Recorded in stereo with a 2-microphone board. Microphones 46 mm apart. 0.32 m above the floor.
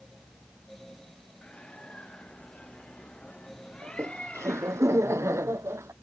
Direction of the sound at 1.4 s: 25° left (ahead or behind).